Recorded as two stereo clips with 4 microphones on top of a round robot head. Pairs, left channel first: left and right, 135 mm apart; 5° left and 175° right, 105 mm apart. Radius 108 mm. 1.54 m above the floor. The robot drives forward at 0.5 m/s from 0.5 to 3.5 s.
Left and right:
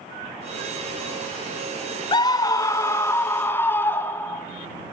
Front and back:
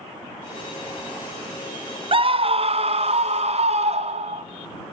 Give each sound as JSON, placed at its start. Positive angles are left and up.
{"t": 2.1, "sound": "a scream", "azimuth_deg": 150, "distance_m": 0.6}